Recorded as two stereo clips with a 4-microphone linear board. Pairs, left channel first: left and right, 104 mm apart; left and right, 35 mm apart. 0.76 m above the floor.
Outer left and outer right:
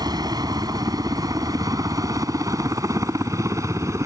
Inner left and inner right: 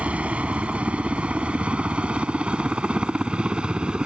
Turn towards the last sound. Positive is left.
turn(degrees=-30)  # may be behind; listen again after turning